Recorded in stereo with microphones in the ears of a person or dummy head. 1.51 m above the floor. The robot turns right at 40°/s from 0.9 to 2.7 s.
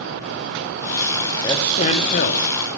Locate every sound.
1.4 s a man speaking: 25° left, 0.7 m; by 2.4 s 60° left, 0.7 m